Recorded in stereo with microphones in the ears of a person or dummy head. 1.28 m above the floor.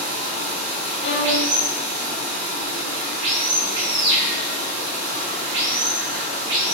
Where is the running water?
65° right (ahead or behind), 1.6 m.